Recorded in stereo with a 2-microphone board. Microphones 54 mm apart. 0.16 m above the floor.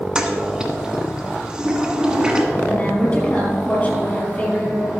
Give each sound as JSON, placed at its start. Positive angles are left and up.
{"t": 0.1, "sound": "a toilet flushing", "side_deg": -15, "distance_m": 1.3}
{"t": 2.5, "sound": "a woman speaking", "side_deg": 25, "distance_m": 4.5}